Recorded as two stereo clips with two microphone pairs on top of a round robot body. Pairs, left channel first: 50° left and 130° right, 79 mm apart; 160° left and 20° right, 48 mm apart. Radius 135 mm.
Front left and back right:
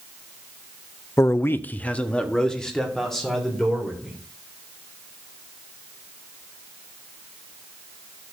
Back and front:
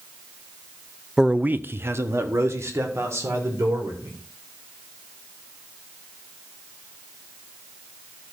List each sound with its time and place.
1.2 s a man speaking: 50° left, 0.6 m; by 4.2 s 40° right, 3 m